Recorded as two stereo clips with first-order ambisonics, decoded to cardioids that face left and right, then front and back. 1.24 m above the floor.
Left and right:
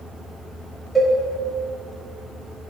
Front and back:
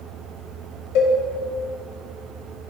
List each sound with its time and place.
0.9 s a cowbell: straight ahead, 3.5 m